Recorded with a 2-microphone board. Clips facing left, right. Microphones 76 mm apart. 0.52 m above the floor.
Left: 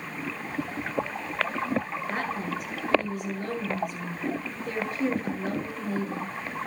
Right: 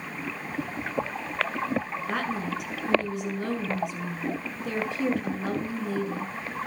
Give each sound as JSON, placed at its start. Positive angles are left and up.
{"t": 2.1, "sound": "a woman speaking", "side_deg": -70, "distance_m": 7.0}